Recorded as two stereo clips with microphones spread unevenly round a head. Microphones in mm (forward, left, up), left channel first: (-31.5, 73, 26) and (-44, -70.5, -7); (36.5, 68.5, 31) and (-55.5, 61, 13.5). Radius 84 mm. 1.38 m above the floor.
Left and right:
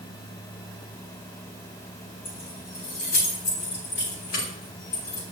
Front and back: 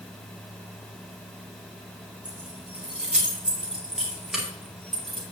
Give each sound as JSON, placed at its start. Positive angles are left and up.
{"t": 2.2, "sound": "keys jangling", "azimuth_deg": 110, "distance_m": 6.0}